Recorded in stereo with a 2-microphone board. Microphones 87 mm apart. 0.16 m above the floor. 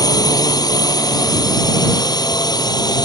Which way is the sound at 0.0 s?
45° left (ahead or behind).